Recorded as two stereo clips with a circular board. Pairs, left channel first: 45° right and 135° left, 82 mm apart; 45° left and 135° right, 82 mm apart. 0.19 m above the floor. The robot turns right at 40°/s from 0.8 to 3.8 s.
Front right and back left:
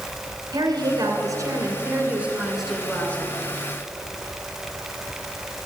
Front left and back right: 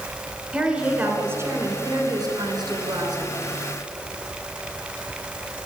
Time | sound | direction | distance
0.5 | a woman speaking | 150° left | 2.5 m